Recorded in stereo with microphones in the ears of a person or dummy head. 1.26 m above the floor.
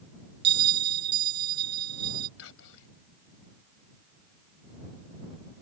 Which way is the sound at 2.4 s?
75° left (ahead or behind).